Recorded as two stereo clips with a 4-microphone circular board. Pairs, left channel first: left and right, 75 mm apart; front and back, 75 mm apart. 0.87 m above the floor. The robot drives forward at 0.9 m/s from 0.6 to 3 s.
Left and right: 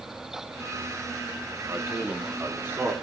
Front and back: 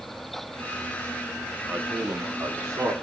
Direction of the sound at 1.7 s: 130° right.